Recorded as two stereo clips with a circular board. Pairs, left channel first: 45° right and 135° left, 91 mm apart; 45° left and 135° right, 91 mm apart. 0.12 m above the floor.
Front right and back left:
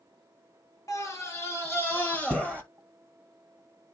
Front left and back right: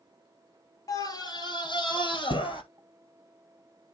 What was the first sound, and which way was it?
A scream, 5° left.